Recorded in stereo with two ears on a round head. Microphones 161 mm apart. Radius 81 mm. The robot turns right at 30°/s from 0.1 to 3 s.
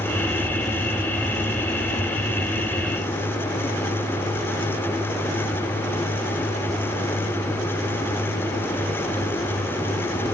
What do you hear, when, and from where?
Only background noise.